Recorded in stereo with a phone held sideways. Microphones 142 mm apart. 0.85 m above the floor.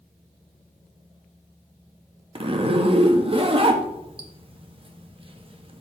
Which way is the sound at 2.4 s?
40° right (ahead or behind).